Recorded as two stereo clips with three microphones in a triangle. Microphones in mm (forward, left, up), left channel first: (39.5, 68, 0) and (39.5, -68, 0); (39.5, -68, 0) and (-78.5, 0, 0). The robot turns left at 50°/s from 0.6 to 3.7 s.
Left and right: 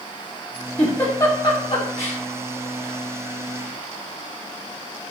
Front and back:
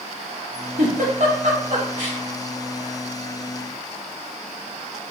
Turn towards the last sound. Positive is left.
turn(degrees=25)